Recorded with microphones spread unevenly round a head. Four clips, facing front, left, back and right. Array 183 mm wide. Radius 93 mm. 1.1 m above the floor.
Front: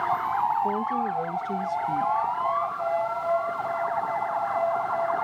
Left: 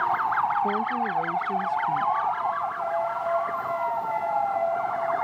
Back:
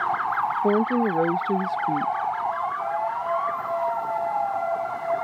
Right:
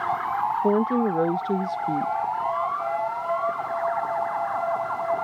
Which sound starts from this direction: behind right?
A woman speaking, at 0.6 s.